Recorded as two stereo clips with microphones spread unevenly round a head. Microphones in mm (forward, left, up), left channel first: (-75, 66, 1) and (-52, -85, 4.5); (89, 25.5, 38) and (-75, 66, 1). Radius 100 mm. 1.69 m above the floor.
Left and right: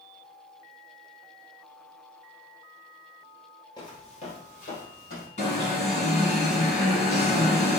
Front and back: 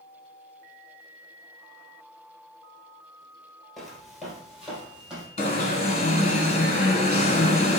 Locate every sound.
3.8 s footsteps: 55° left, 1.9 m; by 5.3 s 75° left, 3.5 m
5.4 s an alarm: 40° left, 1.7 m